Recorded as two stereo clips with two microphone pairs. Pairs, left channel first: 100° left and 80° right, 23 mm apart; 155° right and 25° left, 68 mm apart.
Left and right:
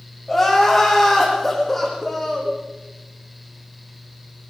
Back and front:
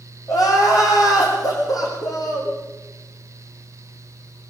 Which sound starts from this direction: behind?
Crying, at 0.3 s.